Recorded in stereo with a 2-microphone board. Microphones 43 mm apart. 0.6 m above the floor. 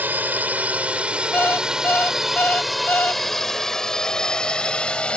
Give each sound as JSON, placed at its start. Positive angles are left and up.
{"t": 0.0, "sound": "a drone", "side_deg": -45}
{"t": 1.3, "sound": "an alarm clock", "side_deg": 50}